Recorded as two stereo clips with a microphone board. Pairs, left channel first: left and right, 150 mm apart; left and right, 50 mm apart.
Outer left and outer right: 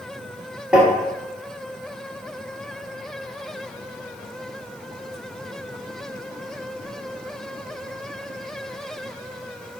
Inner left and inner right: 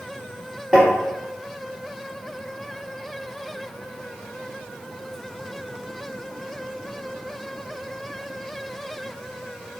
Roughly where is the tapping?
Centre.